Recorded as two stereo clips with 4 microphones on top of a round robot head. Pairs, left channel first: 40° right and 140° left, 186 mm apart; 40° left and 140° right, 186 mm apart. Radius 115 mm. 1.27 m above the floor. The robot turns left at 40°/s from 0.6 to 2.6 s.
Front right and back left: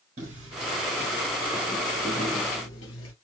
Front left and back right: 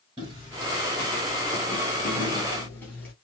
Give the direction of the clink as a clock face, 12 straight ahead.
No clink in this recording.